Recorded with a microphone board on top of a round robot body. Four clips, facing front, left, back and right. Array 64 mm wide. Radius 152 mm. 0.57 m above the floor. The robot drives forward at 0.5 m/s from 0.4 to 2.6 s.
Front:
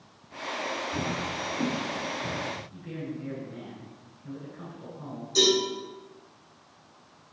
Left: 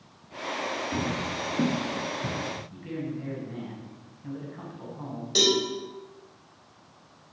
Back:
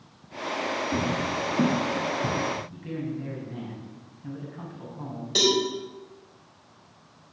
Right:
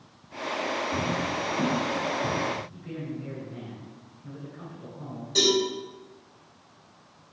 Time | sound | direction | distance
0.9 | footsteps | 160° left | 3.5 m
2.7 | a man speaking | 135° left | 5.5 m
5.3 | a cowbell | 155° left | 4.5 m